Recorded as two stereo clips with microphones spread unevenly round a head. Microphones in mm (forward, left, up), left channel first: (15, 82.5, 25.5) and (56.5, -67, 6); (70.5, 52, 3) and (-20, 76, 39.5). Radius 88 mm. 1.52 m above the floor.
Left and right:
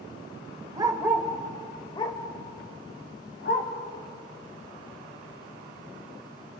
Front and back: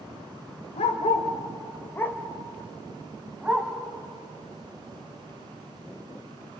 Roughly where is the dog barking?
Ahead.